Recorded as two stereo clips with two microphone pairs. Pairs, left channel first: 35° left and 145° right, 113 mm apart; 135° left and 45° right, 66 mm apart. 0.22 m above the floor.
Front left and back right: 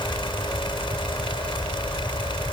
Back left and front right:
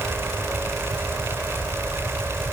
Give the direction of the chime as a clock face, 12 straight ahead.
I don't hear a chime.